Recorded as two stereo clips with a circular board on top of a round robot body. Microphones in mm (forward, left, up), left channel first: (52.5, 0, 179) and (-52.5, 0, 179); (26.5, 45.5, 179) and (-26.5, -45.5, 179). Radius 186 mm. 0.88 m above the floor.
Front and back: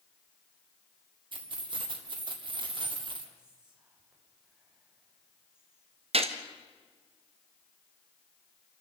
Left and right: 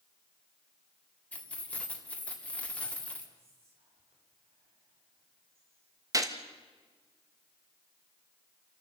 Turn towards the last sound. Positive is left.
turn(degrees=-175)